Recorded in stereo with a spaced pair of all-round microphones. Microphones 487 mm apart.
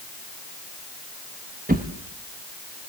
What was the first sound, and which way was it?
A drawer, 20° right (ahead or behind).